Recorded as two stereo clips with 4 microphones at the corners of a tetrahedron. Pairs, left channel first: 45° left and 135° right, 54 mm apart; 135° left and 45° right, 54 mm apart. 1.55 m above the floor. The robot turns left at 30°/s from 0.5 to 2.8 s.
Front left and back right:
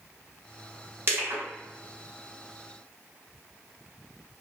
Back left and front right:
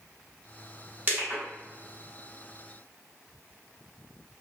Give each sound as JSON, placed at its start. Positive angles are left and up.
{"t": 1.1, "sound": "crushing", "azimuth_deg": -95, "distance_m": 1.5}